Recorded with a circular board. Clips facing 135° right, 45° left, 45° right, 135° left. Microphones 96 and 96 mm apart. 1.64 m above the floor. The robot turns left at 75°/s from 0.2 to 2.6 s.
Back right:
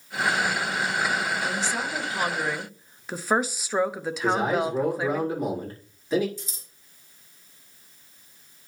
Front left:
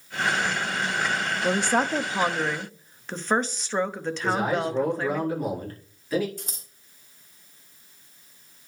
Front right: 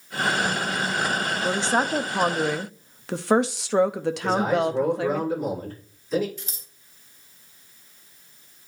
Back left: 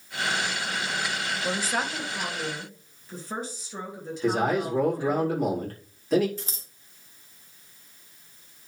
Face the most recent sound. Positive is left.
turn(degrees=80)